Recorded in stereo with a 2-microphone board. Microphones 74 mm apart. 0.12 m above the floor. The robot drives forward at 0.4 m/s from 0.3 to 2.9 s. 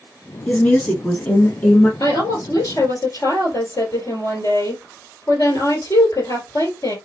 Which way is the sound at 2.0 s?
55° left (ahead or behind).